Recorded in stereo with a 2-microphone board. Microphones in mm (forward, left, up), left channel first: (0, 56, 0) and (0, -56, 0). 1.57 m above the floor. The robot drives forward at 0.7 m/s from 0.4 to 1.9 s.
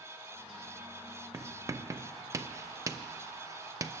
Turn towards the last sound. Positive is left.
turn(degrees=-25)  # may be behind; listen again after turning